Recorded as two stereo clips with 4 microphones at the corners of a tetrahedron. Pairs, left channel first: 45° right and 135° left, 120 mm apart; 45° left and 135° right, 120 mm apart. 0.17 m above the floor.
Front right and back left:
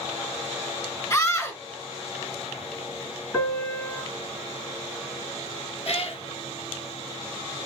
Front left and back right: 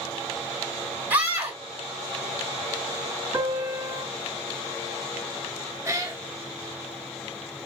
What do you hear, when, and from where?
1.1 s a scream: 80° right, 1.7 m
3.3 s a piano: 115° right, 1.8 m
5.8 s a cat meowing: 70° right, 0.9 m